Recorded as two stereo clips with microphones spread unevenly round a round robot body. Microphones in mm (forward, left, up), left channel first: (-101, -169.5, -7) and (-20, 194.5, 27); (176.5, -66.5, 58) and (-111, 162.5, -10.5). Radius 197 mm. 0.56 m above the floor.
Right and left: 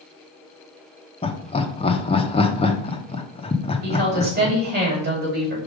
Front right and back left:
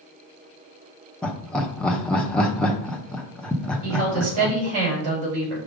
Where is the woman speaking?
145° left, 4 m.